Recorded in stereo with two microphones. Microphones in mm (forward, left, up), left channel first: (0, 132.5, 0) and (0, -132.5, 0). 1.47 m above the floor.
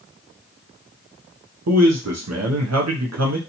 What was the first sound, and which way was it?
A man speaking, 75° right (ahead or behind).